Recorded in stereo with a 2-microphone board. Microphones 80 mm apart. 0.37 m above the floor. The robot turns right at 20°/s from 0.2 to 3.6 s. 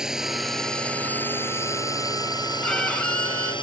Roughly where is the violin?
Centre.